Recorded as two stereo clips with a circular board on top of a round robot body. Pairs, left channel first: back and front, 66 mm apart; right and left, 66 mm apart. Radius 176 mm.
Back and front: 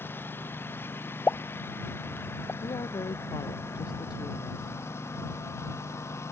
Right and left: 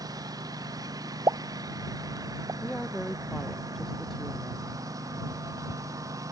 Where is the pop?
115° left.